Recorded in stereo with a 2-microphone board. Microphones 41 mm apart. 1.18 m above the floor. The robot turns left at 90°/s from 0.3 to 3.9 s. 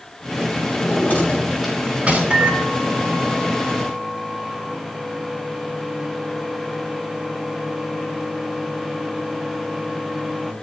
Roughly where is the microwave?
Ahead right.